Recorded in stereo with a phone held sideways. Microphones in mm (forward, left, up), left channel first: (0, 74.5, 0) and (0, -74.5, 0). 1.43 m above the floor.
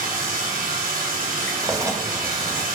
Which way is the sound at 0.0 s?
75° right (ahead or behind).